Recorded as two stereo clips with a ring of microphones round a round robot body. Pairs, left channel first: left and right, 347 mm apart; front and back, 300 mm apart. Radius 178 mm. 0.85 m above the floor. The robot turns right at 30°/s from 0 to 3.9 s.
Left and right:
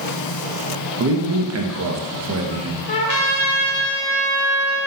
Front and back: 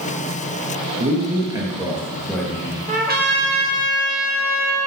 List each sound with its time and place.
1.0 s a man speaking: 125° right, 0.8 m; by 2.8 s 70° right, 0.8 m
2.9 s a trumpet: 115° left, 0.9 m; by 4.9 s 145° left, 0.9 m